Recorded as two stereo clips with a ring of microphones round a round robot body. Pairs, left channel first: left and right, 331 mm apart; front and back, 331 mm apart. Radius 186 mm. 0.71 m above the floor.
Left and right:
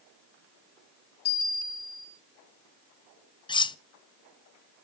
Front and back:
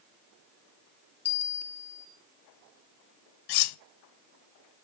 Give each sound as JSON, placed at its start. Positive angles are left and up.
{"t": 1.2, "sound": "a bell", "azimuth_deg": 85, "distance_m": 9.0}
{"t": 3.5, "sound": "cutlery clinking", "azimuth_deg": 10, "distance_m": 0.6}